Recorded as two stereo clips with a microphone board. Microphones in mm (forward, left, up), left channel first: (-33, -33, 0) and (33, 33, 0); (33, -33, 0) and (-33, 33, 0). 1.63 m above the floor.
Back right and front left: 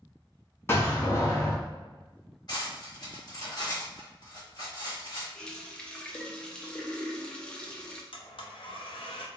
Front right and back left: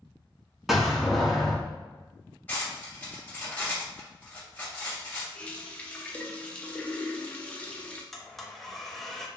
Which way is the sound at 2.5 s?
110° right.